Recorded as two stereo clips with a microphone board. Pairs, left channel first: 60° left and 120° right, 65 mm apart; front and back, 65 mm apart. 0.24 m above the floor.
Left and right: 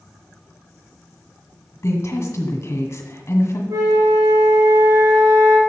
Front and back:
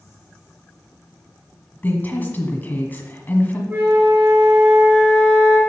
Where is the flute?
125° right, 3 m.